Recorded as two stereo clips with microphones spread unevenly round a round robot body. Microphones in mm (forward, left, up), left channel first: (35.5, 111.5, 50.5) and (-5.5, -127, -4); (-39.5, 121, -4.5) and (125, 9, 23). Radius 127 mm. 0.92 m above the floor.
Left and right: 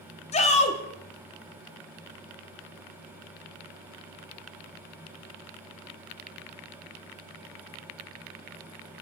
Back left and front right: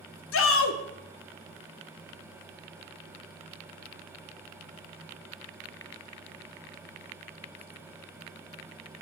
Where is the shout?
150° left, 1.7 m.